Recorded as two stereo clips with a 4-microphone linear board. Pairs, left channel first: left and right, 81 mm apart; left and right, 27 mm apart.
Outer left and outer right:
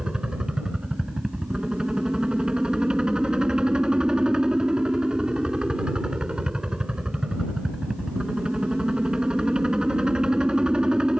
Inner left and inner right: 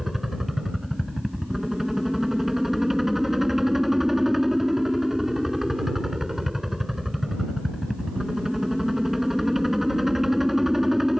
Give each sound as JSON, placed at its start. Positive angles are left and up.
{"t": 0.0, "sound": "a helicopter", "side_deg": -10}